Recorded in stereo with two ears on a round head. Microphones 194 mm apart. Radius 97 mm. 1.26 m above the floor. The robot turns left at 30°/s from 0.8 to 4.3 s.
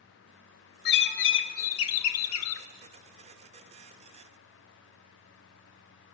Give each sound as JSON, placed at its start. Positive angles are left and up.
{"t": 0.8, "sound": "a bird", "azimuth_deg": 125, "distance_m": 1.2}